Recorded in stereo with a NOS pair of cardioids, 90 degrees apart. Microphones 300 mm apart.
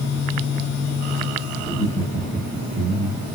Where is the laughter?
25° left, 1.2 m; by 3.2 s 40° right, 1.6 m.